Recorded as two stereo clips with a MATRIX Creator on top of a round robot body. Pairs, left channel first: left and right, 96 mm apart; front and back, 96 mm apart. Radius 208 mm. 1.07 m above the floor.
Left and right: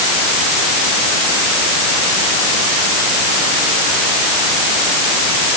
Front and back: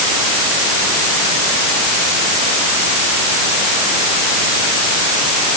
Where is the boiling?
I don't hear boiling.